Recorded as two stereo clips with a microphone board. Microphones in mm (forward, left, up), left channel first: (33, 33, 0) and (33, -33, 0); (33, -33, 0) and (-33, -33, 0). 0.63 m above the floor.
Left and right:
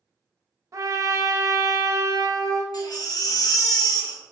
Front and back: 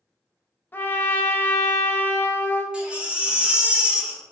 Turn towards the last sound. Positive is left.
turn(degrees=105)